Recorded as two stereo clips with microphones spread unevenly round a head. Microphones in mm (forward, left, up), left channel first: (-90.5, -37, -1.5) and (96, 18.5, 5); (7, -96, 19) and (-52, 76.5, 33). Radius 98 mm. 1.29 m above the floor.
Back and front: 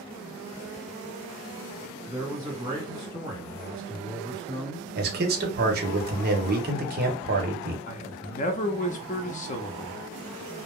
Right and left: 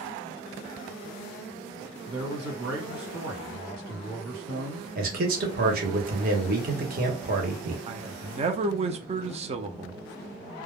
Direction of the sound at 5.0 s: 60° left.